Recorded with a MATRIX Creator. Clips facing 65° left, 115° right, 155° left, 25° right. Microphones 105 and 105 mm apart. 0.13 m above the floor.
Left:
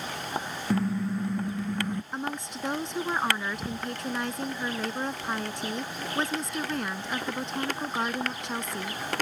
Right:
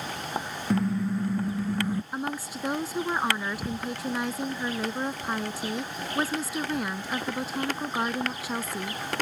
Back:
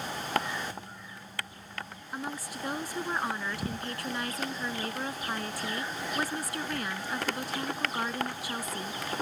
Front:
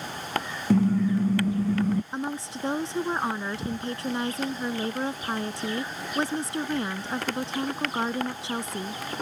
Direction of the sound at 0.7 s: 20° right.